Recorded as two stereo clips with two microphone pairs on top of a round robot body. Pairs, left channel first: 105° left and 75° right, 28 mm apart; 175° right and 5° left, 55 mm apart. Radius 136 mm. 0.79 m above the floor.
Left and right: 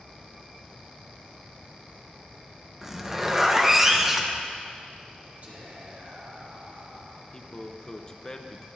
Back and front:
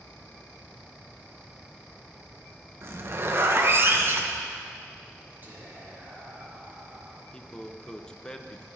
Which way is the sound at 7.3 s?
140° left.